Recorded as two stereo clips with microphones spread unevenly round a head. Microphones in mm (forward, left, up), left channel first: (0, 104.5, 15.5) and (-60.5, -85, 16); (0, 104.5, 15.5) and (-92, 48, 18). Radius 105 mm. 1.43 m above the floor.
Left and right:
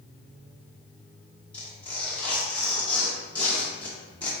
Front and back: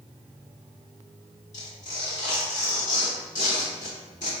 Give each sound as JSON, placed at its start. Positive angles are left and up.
{"t": 1.5, "sound": "tearing paper", "azimuth_deg": -10, "distance_m": 0.7}